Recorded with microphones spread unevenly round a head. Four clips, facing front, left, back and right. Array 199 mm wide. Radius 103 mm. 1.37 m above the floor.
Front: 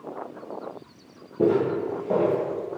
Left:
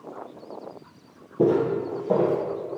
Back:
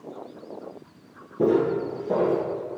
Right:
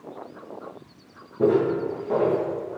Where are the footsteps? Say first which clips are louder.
Right 1 dB, even; 90° left, 1.6 m.